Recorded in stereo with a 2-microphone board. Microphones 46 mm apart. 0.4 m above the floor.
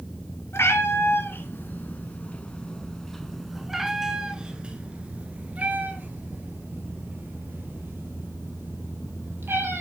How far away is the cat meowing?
About 2 m.